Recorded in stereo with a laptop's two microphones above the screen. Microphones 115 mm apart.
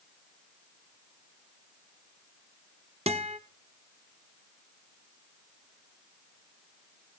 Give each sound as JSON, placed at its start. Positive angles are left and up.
{"t": 3.1, "sound": "a guitar", "side_deg": -60, "distance_m": 0.9}